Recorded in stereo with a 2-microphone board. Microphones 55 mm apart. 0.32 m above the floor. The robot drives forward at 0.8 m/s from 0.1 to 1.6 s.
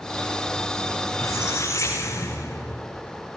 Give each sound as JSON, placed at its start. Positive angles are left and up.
{"t": 1.1, "sound": "a squeak", "side_deg": 65, "distance_m": 8.0}